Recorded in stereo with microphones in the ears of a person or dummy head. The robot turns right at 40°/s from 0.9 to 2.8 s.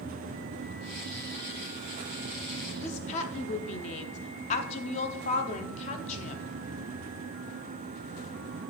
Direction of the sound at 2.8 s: 40° left (ahead or behind).